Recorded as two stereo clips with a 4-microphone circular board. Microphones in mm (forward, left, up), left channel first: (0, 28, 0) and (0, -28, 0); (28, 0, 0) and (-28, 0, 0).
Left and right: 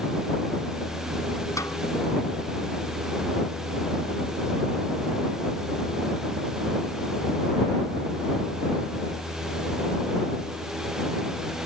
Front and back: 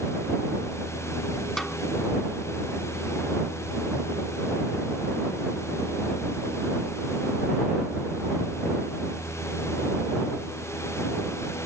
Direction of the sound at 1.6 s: 85° left.